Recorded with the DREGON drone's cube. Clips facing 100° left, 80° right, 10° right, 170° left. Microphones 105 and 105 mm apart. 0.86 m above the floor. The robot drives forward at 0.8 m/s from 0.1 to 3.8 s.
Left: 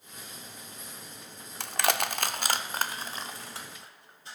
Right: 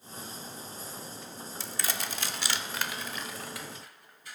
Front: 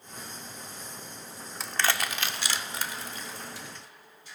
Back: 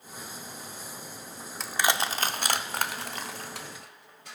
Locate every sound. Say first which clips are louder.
1.6 s crushing: left 9 dB, back 2 dB; 80° left, 0.6 m; by 4.3 s 160° left, 1.8 m